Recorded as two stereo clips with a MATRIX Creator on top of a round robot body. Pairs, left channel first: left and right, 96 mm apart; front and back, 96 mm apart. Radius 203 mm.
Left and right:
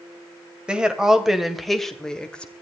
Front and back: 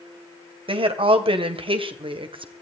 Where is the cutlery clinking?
No cutlery clinking in this recording.